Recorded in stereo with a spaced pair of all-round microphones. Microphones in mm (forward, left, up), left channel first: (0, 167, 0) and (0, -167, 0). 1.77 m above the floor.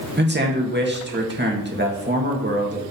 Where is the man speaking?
30° right (ahead or behind), 2 m.